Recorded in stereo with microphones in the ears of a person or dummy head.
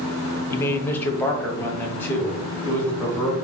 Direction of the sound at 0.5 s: 15° left (ahead or behind).